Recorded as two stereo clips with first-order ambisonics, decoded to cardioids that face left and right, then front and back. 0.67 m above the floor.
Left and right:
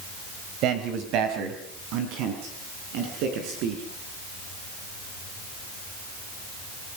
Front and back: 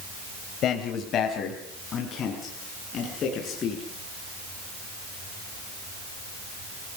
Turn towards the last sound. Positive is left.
turn(degrees=-65)